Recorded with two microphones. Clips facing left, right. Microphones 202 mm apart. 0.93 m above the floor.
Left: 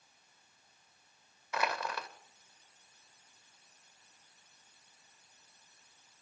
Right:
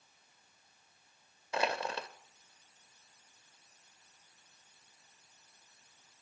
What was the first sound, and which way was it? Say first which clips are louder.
Crushing: right 2 dB; 30° right (ahead or behind).